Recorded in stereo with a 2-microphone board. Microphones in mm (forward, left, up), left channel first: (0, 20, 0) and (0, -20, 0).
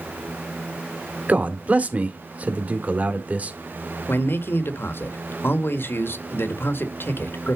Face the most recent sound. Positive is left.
turn(degrees=65)  # may be behind; listen again after turning